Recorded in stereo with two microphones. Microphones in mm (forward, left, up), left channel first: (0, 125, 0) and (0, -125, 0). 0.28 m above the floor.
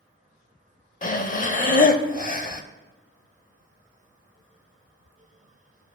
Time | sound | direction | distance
1.0 | breathing | 35° left (ahead or behind) | 0.5 m